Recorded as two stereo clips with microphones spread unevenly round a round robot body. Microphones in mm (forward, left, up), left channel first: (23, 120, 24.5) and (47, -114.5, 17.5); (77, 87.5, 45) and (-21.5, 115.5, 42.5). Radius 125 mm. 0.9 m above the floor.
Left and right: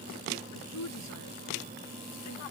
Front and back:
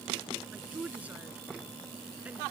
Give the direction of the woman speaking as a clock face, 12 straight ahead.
9 o'clock.